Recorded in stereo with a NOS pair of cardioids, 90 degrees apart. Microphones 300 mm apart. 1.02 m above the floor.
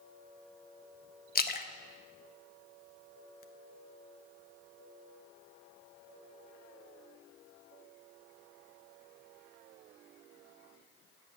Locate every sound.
1.4 s a splash: 30° left, 1.0 m